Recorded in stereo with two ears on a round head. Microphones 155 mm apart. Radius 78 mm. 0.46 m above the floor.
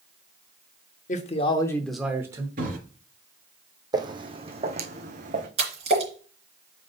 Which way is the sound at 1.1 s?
45° left (ahead or behind).